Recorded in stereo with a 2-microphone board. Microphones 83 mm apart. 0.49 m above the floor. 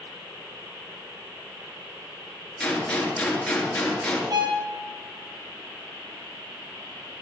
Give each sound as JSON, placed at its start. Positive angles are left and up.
{"t": 2.6, "sound": "a gunshot", "side_deg": 10, "distance_m": 3.5}
{"t": 4.3, "sound": "a violin", "side_deg": -55, "distance_m": 3.5}